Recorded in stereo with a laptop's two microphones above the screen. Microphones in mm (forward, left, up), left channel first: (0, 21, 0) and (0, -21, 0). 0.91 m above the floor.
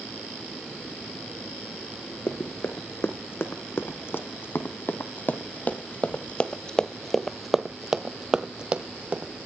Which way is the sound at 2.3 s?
75° left (ahead or behind).